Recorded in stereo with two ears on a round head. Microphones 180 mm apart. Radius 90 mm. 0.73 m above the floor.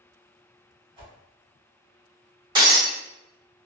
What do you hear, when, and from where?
1.0 s a whoosh: 30° right (ahead or behind), 1.7 m
2.5 s breaking glass: 25° right (ahead or behind), 1.5 m